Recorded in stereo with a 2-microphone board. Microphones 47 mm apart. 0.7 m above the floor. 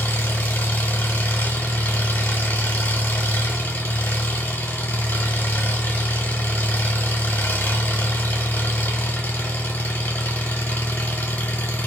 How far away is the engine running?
About 1.3 m.